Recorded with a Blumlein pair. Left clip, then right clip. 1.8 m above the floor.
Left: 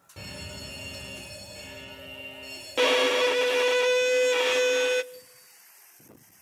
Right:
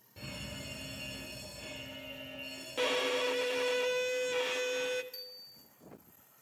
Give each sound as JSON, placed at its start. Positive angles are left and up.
{"t": 0.2, "sound": "a fire alarm", "azimuth_deg": 65, "distance_m": 9.5}
{"t": 2.8, "sound": "a violin", "azimuth_deg": 30, "distance_m": 0.5}
{"t": 5.1, "sound": "a bicycle bell", "azimuth_deg": -65, "distance_m": 6.0}